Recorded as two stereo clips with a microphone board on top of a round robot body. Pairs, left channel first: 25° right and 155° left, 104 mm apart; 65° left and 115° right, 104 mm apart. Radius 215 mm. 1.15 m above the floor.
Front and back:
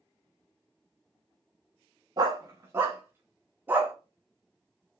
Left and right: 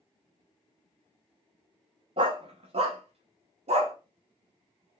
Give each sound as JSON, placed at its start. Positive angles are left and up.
{"t": 2.2, "sound": "a dog barking", "azimuth_deg": -150, "distance_m": 0.6}